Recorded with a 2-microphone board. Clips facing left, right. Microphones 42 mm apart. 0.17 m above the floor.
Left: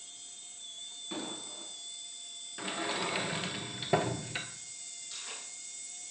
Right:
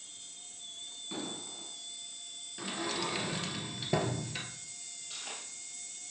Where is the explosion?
10° left (ahead or behind), 1.7 m.